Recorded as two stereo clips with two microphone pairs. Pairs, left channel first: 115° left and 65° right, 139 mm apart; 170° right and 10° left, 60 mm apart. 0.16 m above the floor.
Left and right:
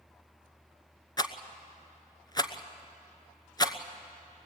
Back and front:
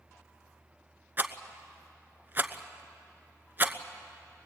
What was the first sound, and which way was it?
A rattle, 60° left.